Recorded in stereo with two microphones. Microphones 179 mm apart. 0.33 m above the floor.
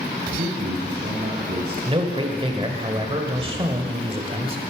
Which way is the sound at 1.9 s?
30° right (ahead or behind).